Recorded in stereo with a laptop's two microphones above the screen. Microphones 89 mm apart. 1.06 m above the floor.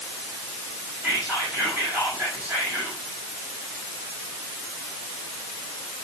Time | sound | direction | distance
1.0 | whispering | 20° right (ahead or behind) | 6.5 m